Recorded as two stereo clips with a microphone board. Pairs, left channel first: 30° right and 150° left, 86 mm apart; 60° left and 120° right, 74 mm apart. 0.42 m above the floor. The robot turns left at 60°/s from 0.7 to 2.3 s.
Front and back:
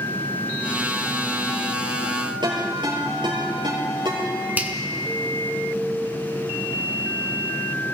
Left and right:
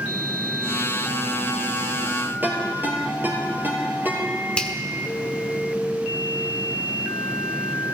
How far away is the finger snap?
About 1.3 m.